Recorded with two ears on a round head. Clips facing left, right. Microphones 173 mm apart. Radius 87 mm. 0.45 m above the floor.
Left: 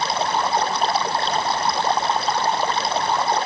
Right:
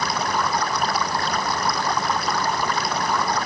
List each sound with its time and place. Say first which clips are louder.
0.0 s running water: left 2 dB; 25° left (ahead or behind)